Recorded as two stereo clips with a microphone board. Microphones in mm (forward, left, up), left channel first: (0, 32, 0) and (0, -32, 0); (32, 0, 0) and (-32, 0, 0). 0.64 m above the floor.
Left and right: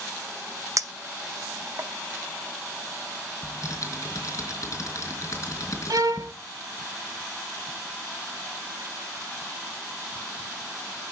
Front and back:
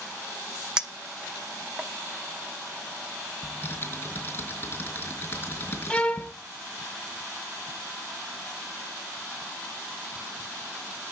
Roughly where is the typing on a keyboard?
Ahead left.